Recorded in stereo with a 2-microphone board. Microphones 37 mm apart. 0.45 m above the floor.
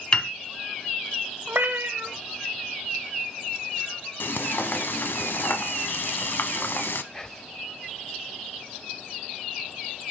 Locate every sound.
0.1 s a piano: 25° left (ahead or behind), 0.7 m
1.5 s a cat meowing: 70° right (ahead or behind), 0.9 m
4.2 s frying: 75° left (ahead or behind), 0.7 m
7.1 s whispering: 15° left (ahead or behind), 0.9 m